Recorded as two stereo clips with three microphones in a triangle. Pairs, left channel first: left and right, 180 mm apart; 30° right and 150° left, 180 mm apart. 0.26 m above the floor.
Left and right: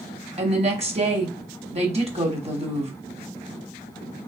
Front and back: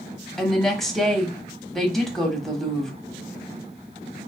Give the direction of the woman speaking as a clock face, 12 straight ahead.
4 o'clock.